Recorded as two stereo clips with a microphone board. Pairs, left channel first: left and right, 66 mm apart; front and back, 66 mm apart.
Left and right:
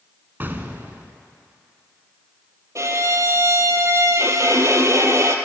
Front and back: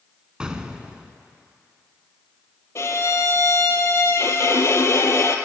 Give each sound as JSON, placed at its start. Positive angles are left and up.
{"t": 0.4, "sound": "an explosion", "azimuth_deg": -115, "distance_m": 0.6}
{"t": 2.8, "sound": "a violin", "azimuth_deg": -45, "distance_m": 0.7}